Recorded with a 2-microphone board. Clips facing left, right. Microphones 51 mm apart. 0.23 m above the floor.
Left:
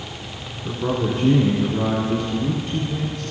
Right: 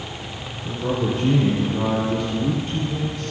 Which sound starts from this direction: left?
A man speaking, at 0.7 s.